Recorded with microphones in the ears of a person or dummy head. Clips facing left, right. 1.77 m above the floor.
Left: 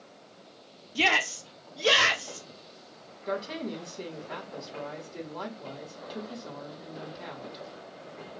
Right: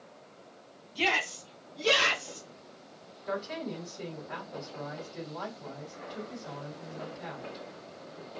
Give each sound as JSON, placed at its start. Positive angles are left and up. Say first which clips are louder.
{"t": 0.9, "sound": "a shout", "louder": "left 3 dB", "side_deg": 55, "distance_m": 0.5}
{"t": 3.3, "sound": "a woman speaking", "louder": "left 2 dB", "side_deg": 55, "distance_m": 1.6}